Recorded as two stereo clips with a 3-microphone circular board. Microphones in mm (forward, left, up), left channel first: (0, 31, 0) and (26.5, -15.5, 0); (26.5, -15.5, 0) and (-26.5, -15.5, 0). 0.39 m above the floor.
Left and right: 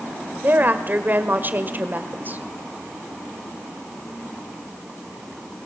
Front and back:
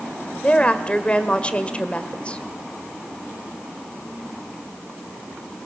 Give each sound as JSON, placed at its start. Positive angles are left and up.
{"t": 0.4, "sound": "a woman speaking", "azimuth_deg": -50, "distance_m": 1.8}